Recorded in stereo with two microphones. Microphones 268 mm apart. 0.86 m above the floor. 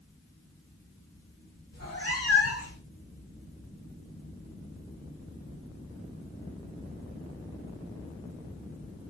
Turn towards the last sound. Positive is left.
turn(degrees=50)  # may be behind; listen again after turning